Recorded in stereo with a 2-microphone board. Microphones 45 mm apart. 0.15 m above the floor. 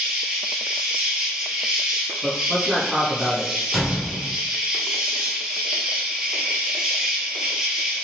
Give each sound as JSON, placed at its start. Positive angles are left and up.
{"t": 0.0, "sound": "an insect", "side_deg": -15, "distance_m": 0.7}
{"t": 2.2, "sound": "a man speaking", "side_deg": -5, "distance_m": 1.3}
{"t": 3.7, "sound": "a gunshot", "side_deg": -5, "distance_m": 0.6}